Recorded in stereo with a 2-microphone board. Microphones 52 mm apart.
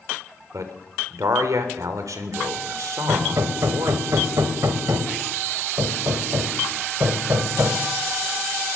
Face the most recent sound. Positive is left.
turn(degrees=-75)  # may be behind; listen again after turning